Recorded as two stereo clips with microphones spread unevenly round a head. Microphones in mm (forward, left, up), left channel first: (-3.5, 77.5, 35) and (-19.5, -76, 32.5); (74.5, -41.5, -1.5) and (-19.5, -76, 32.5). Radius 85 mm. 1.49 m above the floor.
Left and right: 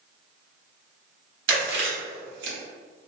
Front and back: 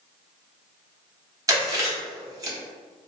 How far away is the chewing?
About 1.0 m.